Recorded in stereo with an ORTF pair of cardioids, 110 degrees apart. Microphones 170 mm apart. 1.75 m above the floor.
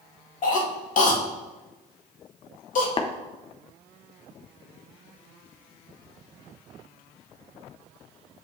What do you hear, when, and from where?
0.4 s a cough: 50° left, 2 m
3.0 s tapping: 30° left, 0.7 m